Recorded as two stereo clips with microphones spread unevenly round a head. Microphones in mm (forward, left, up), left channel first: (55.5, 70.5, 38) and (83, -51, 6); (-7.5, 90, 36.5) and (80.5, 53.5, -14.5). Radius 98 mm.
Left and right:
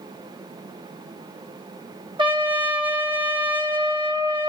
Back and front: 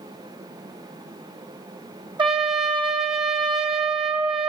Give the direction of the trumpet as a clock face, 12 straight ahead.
1 o'clock.